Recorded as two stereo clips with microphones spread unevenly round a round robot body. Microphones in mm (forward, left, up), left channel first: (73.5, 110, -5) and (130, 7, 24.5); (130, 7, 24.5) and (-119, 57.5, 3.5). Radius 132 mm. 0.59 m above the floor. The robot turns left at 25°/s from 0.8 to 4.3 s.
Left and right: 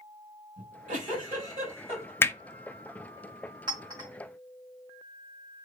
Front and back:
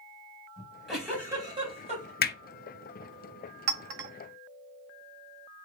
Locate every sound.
0.6 s a giggle: 100° right, 2 m; by 2.1 s 135° right, 2 m
2.2 s hammering: 40° left, 0.6 m; by 2.4 s 35° left, 0.6 m
3.7 s a clink: 135° right, 0.6 m; by 4.1 s 150° right, 0.6 m